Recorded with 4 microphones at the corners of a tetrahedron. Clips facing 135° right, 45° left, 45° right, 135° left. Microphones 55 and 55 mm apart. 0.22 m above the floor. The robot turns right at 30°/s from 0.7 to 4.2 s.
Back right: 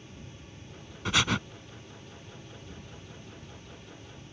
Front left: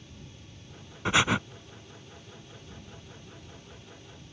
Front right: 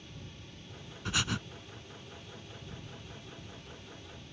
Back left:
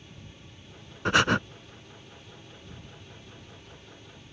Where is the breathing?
110° left; by 1.4 s 120° left.